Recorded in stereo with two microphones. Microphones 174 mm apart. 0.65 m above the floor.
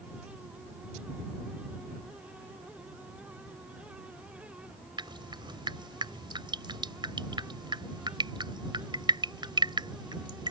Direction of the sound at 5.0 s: 25° right (ahead or behind).